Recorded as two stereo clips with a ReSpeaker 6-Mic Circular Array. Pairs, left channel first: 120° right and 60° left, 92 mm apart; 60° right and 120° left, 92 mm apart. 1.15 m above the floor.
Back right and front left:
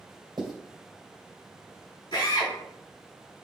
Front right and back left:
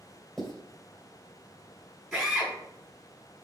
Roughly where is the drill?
Behind right.